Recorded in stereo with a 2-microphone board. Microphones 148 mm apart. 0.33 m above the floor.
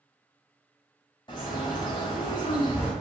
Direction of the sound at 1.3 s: 30° left (ahead or behind).